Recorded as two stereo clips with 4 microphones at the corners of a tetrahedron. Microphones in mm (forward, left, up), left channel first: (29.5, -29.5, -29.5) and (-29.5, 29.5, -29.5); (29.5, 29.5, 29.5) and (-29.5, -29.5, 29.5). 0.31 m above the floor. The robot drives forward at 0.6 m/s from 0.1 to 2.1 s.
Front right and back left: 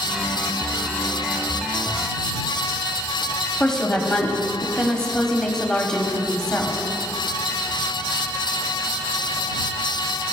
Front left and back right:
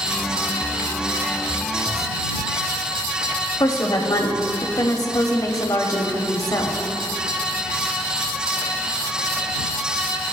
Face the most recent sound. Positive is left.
turn(degrees=35)